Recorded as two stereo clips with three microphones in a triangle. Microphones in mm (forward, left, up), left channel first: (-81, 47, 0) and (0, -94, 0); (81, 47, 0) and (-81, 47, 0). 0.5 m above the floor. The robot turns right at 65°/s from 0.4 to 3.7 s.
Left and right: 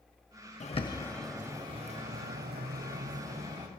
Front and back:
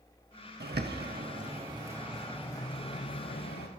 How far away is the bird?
About 0.6 m.